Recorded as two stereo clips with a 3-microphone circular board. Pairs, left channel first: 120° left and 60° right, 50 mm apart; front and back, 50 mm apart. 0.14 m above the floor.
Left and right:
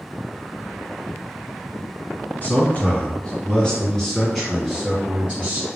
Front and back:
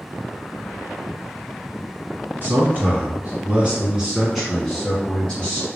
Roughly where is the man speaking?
Behind left.